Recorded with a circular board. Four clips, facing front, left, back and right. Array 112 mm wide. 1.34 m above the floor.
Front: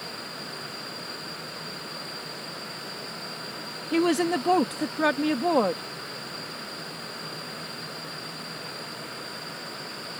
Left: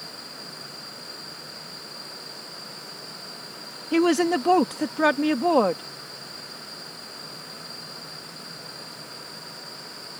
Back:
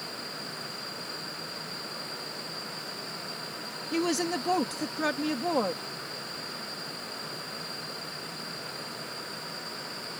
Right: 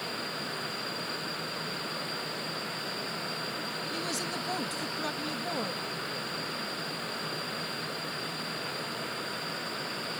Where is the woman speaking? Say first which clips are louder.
Left 19 dB, front 6 dB; 70° left.